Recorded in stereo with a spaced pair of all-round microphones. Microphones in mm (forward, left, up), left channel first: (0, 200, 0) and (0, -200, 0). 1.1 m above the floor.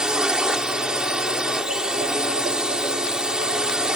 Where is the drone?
Centre (ahead or behind).